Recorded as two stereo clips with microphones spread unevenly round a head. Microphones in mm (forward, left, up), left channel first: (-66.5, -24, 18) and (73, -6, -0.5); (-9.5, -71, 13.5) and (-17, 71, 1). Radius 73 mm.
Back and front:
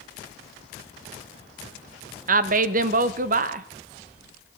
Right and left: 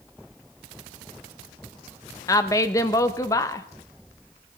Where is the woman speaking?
15° right, 0.7 m.